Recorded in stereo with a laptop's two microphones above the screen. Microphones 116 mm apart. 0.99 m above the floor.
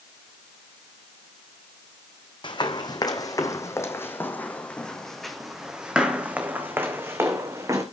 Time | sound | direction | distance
2.4 | running footsteps | 45° left (ahead or behind) | 2.5 m